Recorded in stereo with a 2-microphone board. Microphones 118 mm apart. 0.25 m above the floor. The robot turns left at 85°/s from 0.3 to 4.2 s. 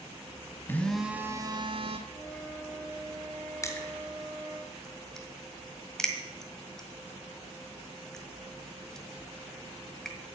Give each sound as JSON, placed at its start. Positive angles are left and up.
{"t": 0.7, "sound": "a phone buzzing", "azimuth_deg": 25, "distance_m": 1.1}
{"t": 2.1, "sound": "a flute", "azimuth_deg": 50, "distance_m": 2.0}
{"t": 3.6, "sound": "crushing", "side_deg": 25, "distance_m": 1.7}